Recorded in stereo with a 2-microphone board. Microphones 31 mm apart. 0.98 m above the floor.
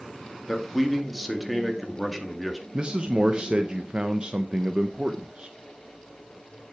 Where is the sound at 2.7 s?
30° right (ahead or behind), 0.8 m.